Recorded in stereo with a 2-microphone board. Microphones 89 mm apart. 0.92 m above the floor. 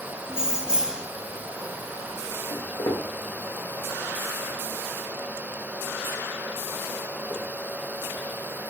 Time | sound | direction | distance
0.3 | keys jangling | 10° right (ahead or behind) | 1.0 m
2.5 | footsteps | 60° left (ahead or behind) | 4 m